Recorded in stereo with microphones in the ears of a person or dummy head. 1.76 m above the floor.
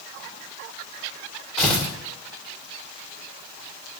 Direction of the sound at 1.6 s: 5° left (ahead or behind).